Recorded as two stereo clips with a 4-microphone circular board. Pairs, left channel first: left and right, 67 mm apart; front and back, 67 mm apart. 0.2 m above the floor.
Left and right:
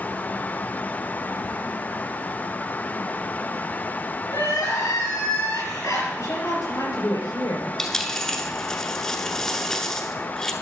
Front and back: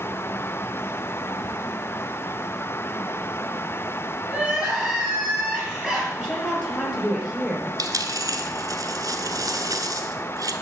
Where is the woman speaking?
85° left, 4 m.